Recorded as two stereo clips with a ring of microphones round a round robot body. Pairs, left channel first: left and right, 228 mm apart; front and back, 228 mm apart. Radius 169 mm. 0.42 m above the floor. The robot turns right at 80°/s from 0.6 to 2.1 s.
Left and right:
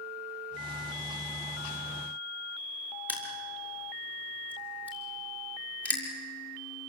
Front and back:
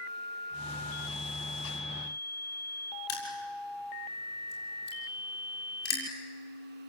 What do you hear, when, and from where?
3.1 s crushing: 5° right, 7 m